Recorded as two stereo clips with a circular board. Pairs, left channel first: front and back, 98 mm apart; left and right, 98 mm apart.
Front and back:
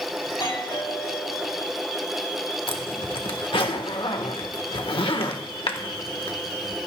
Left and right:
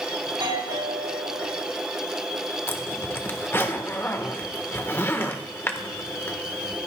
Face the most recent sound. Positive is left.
turn(degrees=25)